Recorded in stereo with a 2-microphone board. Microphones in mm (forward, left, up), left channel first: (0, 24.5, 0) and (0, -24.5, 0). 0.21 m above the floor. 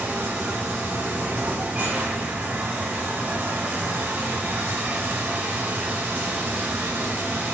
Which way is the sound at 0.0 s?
30° right (ahead or behind).